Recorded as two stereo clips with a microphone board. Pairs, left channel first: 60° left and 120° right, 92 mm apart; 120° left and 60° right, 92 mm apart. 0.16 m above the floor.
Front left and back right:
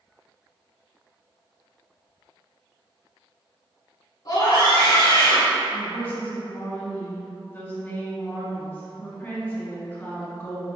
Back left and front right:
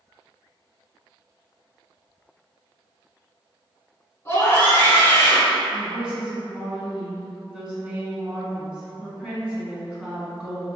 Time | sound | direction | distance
4.2 | a scream | 70° left | 1.6 m
5.7 | a woman speaking | 10° left | 1.6 m